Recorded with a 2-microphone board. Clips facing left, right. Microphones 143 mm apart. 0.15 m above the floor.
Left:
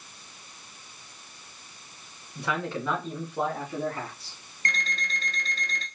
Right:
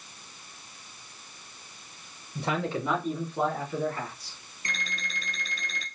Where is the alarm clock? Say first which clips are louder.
Left 4 dB; 10° right (ahead or behind), 1.4 m.